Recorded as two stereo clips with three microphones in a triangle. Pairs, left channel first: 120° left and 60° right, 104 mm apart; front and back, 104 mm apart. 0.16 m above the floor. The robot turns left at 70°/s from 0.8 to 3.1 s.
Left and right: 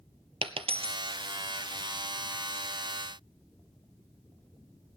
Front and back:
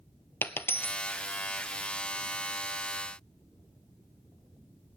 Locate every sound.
0.4 s a dropped coin: 70° right, 0.7 m; by 1.0 s 80° right, 0.7 m